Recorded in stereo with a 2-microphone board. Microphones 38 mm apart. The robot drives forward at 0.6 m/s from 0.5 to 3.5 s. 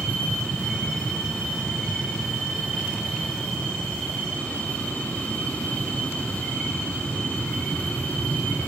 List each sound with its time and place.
0.0 s an aircraft: 45° left (ahead or behind)